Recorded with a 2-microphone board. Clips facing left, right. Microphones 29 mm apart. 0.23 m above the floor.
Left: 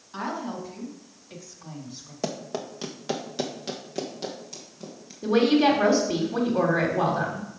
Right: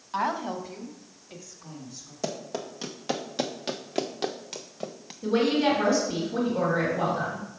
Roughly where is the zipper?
I don't hear a zipper.